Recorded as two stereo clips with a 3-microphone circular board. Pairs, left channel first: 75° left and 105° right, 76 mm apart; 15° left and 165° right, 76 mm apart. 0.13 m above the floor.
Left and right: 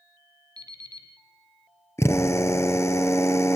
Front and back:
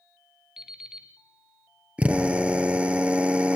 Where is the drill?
125° left, 1.8 m.